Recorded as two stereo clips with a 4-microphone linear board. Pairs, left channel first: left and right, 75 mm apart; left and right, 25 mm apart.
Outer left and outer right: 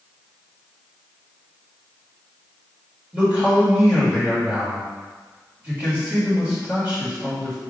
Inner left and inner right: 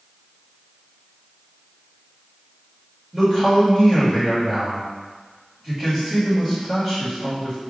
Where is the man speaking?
20° right (ahead or behind), 1.8 m.